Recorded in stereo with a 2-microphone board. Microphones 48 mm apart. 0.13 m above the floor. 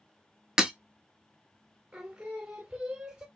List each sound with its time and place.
0.6 s breaking glass: 20° right (ahead or behind), 0.5 m
1.9 s singing: 20° right (ahead or behind), 1.2 m